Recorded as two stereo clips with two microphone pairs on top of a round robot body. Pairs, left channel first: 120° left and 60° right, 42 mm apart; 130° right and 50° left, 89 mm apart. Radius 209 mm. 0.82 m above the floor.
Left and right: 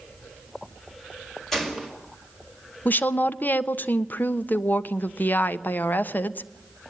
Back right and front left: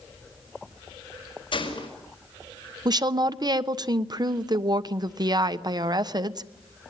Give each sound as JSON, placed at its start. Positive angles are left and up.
{"t": 1.5, "sound": "a gunshot", "azimuth_deg": -155, "distance_m": 5.0}
{"t": 2.9, "sound": "a woman speaking", "azimuth_deg": 75, "distance_m": 1.3}